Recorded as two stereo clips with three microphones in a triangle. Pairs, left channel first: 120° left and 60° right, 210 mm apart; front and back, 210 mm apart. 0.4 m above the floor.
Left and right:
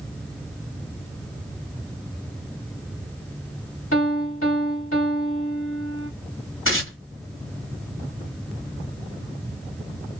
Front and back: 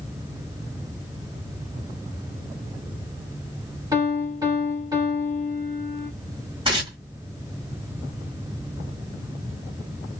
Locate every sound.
3.9 s a piano: 110° left, 1.5 m
6.7 s tearing paper: 115° left, 1.6 m